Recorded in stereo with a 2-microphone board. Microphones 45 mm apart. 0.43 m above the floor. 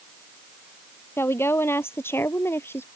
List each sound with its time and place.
1.2 s a woman speaking: 60° left (ahead or behind)